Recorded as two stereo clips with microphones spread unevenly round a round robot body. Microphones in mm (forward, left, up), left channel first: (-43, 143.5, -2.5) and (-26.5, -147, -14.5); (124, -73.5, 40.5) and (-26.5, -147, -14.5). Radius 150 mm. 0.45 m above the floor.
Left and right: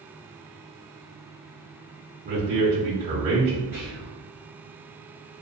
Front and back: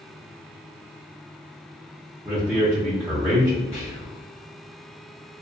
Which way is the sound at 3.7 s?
30° right.